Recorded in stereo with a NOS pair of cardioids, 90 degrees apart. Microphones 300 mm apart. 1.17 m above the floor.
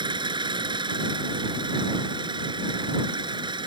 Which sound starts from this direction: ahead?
An engine running, at 0.0 s.